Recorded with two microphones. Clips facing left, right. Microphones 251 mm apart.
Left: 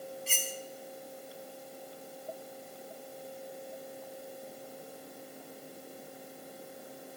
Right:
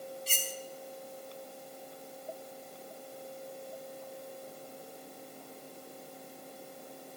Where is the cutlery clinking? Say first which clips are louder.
Left 1 dB; 40° right (ahead or behind), 0.9 m.